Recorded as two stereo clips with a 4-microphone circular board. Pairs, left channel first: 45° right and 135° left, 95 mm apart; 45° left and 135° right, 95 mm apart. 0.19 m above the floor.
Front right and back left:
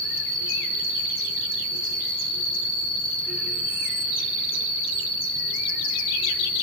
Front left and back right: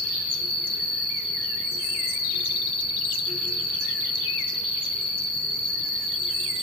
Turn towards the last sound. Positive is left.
turn(degrees=20)